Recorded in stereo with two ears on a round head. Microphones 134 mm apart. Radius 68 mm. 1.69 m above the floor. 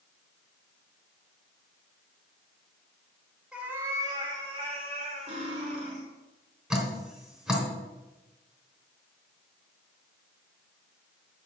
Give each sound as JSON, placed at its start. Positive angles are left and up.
{"t": 3.5, "sound": "a cat meowing", "side_deg": -5, "distance_m": 1.3}
{"t": 5.3, "sound": "cutlery clinking", "side_deg": -45, "distance_m": 3.0}
{"t": 6.7, "sound": "dripping", "side_deg": -5, "distance_m": 3.0}